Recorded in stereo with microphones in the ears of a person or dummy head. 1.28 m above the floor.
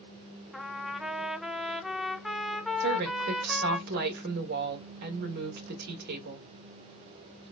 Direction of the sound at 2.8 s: 55° right (ahead or behind).